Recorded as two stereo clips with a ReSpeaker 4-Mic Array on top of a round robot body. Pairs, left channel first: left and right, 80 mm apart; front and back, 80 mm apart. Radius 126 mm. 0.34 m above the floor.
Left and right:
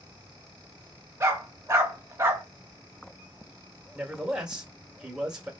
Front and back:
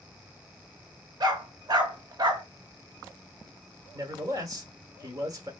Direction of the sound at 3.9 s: 165° right.